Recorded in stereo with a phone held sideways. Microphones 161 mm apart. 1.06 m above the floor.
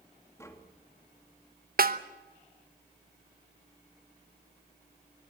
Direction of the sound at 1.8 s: 65° right (ahead or behind).